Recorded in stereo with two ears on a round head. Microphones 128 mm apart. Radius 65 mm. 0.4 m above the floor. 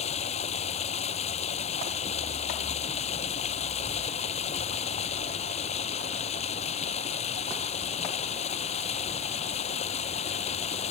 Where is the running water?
50° left (ahead or behind).